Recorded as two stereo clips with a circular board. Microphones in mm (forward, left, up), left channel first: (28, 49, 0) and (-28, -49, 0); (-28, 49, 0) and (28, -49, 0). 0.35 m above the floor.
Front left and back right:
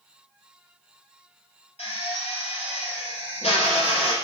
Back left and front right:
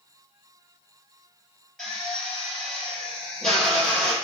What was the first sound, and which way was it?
A drill, 35° left.